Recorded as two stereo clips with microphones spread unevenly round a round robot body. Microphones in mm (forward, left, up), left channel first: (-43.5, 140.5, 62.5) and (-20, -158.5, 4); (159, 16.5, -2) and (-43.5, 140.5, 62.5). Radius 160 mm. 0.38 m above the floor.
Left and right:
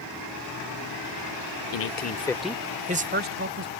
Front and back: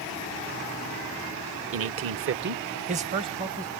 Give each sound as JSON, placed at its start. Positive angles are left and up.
{"t": 1.7, "sound": "a man speaking", "azimuth_deg": 125}